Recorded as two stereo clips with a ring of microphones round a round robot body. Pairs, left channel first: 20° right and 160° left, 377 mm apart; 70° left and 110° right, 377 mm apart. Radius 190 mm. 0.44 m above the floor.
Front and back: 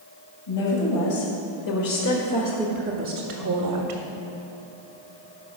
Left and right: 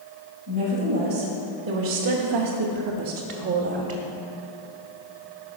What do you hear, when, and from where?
0.5 s a woman speaking: 45° right, 2.5 m; by 4.0 s 175° left, 1.7 m